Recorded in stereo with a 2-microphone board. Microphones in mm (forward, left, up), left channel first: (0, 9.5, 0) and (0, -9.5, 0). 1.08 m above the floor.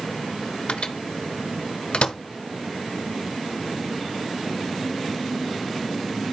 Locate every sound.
0.7 s a microwave: 65° left (ahead or behind), 1.1 m